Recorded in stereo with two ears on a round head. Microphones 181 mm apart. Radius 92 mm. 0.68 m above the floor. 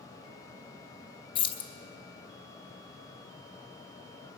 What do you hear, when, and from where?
1.4 s keys jangling: 25° left (ahead or behind), 0.6 m